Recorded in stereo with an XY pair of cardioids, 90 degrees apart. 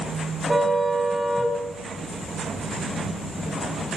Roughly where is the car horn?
Ahead.